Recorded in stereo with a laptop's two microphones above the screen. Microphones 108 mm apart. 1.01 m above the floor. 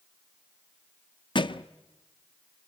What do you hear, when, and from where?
1.4 s a thud: 45° left (ahead or behind), 0.6 m